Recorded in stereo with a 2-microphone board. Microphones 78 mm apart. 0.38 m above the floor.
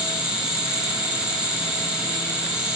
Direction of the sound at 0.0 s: 10° right (ahead or behind).